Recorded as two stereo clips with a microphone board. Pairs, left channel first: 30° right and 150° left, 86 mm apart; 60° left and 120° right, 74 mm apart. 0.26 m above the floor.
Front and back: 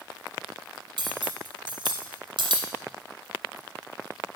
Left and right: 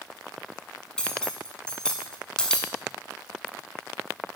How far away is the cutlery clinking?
About 1.3 m.